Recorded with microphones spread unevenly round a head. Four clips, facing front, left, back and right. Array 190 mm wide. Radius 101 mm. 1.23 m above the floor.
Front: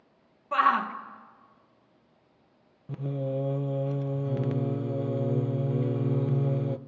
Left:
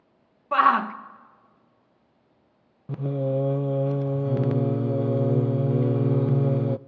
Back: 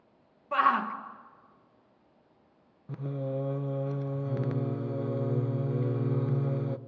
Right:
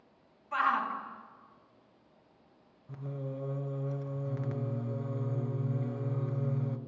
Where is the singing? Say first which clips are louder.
Left 14 dB, front 3 dB; 80° left, 0.5 m.